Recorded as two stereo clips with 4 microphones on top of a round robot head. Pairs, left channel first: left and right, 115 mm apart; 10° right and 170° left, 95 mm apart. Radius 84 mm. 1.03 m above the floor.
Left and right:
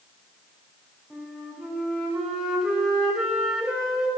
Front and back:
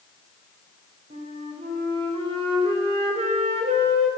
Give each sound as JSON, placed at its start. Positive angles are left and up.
{"t": 1.1, "sound": "a flute", "azimuth_deg": 175, "distance_m": 3.5}